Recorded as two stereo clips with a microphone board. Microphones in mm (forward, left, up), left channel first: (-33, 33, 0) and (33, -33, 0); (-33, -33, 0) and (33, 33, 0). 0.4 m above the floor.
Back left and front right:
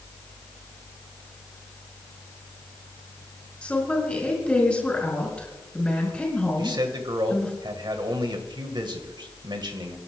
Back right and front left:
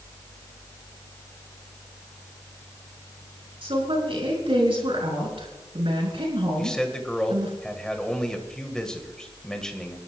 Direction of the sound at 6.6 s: 55° right.